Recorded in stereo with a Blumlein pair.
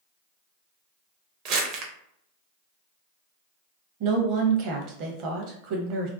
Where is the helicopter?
No helicopter in this recording.